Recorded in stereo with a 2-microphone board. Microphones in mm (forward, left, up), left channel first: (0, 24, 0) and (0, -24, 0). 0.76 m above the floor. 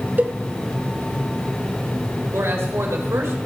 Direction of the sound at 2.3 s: 75° right (ahead or behind).